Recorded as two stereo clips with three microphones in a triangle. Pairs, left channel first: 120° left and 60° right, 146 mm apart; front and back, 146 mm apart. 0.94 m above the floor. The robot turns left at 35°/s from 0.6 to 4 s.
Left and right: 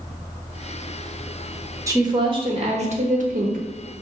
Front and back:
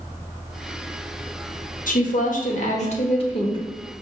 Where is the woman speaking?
5° left, 0.9 m; by 3.6 s 55° right, 0.9 m.